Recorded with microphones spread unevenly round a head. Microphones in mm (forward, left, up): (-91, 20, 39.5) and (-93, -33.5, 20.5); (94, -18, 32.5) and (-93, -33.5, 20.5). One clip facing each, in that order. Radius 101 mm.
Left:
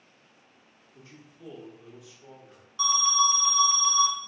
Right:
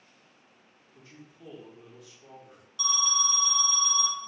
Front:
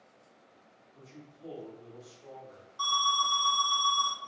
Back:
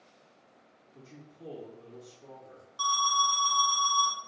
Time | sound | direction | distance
0.9 | a man speaking | 175° left | 1.9 m
2.8 | an alarm | 160° left | 1.1 m